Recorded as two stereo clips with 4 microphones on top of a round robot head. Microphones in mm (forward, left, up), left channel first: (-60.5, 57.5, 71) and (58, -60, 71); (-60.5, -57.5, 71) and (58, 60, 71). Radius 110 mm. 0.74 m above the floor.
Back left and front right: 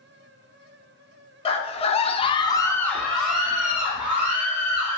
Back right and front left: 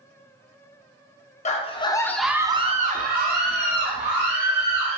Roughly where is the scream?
Behind.